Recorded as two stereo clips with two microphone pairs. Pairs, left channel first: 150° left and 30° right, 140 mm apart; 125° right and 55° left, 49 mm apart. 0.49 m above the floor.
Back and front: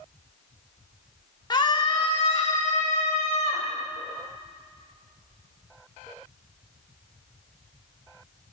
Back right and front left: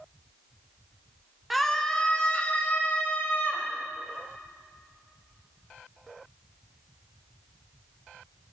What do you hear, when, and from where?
1.5 s a scream: 140° left, 1.0 m; by 3.7 s 160° right, 2 m